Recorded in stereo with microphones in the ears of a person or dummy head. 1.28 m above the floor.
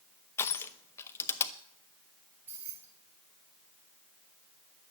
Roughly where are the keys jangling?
Centre.